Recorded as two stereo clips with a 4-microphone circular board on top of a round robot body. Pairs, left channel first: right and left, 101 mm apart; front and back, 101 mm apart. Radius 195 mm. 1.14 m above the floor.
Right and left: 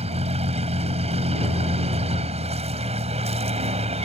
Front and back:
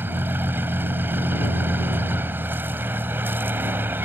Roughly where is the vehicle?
Left.